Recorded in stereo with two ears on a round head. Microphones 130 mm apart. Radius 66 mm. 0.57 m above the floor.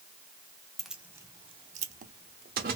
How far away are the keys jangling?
About 0.6 m.